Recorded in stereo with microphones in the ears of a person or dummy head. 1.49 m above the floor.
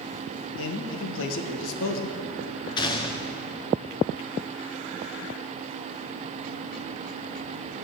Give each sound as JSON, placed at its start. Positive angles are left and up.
{"t": 0.6, "sound": "a man speaking", "side_deg": 70, "distance_m": 1.1}
{"t": 2.8, "sound": "a gunshot", "side_deg": 20, "distance_m": 0.8}